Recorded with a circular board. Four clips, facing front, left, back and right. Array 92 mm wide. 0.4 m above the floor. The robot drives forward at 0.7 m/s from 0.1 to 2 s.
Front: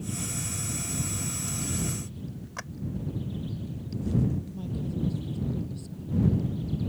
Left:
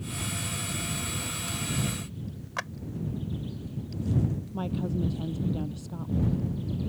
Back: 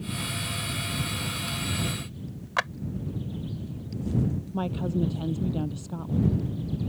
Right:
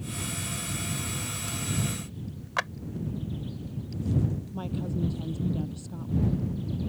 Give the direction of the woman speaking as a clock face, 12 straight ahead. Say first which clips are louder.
Left 2 dB, back 5 dB; 6 o'clock.